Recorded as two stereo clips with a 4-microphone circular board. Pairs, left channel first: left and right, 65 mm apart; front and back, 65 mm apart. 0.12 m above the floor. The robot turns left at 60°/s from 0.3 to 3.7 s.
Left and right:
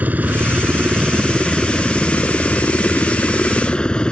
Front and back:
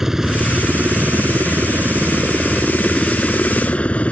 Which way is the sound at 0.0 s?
105° right.